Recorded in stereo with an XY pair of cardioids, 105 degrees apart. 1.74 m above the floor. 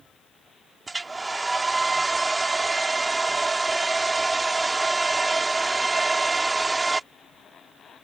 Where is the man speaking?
I don't hear a man speaking.